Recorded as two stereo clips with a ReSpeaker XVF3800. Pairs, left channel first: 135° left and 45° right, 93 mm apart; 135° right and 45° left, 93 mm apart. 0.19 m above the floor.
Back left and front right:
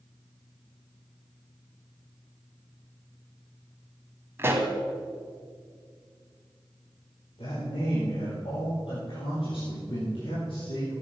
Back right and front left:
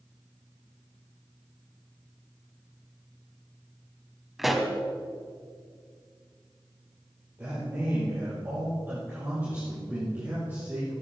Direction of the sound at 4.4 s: 40° right.